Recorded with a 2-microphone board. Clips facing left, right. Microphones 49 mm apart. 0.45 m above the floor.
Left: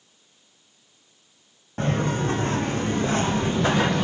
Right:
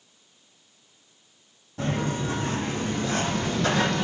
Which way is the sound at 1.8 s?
55° left (ahead or behind).